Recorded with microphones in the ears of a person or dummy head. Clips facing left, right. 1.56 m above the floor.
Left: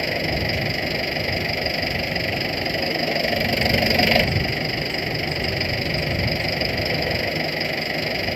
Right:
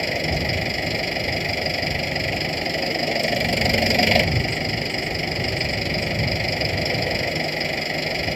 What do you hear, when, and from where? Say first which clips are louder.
0.0 s an engine running: even; 5° left (ahead or behind)